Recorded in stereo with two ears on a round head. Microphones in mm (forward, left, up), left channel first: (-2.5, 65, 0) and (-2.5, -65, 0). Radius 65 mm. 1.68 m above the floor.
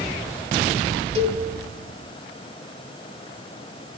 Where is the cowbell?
45° right (ahead or behind), 2.5 m.